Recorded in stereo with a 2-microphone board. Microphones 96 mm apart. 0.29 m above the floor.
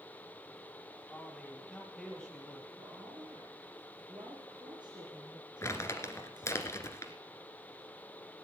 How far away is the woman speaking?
About 3 m.